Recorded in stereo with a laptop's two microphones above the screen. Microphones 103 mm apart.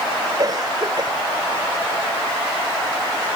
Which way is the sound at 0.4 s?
45° right (ahead or behind).